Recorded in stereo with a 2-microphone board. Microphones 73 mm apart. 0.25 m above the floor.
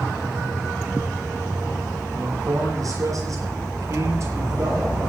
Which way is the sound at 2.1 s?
55° right (ahead or behind).